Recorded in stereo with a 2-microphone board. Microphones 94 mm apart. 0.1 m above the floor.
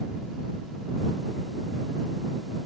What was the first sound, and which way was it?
Only background noise.